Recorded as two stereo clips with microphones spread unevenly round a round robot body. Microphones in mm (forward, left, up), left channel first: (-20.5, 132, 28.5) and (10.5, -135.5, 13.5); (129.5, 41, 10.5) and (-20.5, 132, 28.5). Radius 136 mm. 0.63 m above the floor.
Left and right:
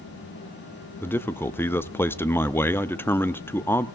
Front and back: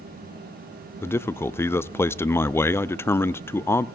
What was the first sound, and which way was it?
A man speaking, 15° left.